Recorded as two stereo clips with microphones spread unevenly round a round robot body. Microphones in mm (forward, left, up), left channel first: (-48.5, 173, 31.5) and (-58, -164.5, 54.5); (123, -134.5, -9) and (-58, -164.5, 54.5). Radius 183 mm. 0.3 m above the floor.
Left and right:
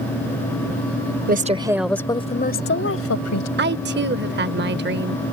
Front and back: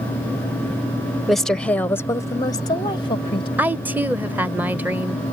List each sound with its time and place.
1.3 s a woman speaking: 45° right; by 3.5 s 60° left
3.6 s a woman speaking: 65° right